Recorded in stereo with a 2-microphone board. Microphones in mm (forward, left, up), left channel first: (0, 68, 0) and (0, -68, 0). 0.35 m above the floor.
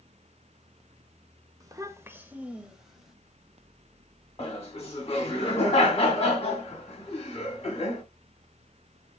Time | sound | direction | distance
1.6 | a child speaking | 25° right (ahead or behind) | 0.5 m
4.4 | laughter | 45° left (ahead or behind) | 1.8 m